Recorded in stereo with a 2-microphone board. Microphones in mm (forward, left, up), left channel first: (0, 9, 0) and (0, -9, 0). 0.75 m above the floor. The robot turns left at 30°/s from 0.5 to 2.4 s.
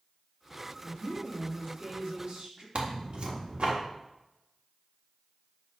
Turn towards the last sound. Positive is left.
turn(degrees=-70)  # may be behind; listen again after turning